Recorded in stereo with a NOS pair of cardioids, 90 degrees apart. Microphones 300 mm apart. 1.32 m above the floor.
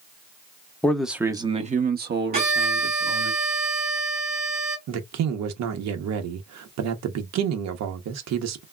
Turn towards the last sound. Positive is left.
turn(degrees=-65)